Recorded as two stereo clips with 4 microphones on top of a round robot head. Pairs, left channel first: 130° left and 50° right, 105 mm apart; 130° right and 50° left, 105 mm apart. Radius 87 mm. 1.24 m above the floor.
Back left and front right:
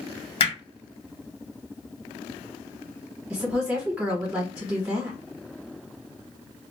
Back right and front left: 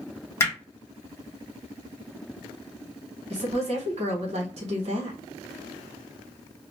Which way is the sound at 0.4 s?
165° left.